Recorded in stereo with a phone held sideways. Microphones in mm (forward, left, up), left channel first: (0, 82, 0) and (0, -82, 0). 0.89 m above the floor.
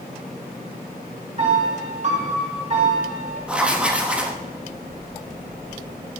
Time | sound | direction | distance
1.4 | a piano | 40° right (ahead or behind) | 3 m
3.5 | writing | 5° right (ahead or behind) | 1.1 m